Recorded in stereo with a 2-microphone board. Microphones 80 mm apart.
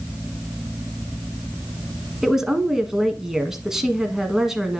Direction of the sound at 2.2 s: 5° right (ahead or behind).